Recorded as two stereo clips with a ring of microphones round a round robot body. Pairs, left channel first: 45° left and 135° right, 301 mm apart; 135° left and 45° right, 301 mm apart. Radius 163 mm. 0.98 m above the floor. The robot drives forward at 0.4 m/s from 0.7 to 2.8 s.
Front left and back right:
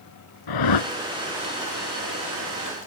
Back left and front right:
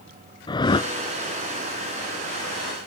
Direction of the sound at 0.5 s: 60° left.